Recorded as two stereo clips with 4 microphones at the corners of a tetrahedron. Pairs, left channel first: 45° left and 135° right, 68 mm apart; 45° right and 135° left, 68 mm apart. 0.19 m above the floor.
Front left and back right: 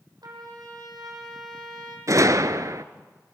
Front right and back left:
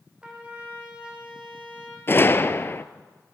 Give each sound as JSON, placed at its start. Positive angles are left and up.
{"t": 0.2, "sound": "a trumpet", "azimuth_deg": -150, "distance_m": 6.0}
{"t": 2.1, "sound": "a gunshot", "azimuth_deg": -100, "distance_m": 0.9}